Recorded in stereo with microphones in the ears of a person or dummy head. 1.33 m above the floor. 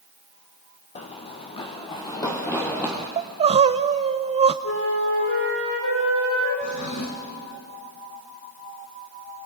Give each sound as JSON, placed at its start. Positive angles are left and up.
{"t": 0.9, "sound": "running footsteps", "side_deg": 35, "distance_m": 2.5}
{"t": 3.2, "sound": "crying", "side_deg": -30, "distance_m": 0.7}
{"t": 4.6, "sound": "a flute", "side_deg": 70, "distance_m": 9.0}
{"t": 6.6, "sound": "a drawer", "side_deg": 65, "distance_m": 3.5}